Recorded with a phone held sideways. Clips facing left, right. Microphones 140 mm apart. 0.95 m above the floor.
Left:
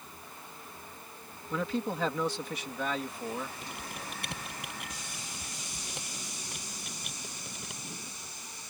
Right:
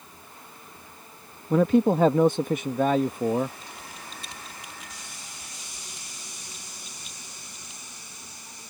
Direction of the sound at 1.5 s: 50° right (ahead or behind).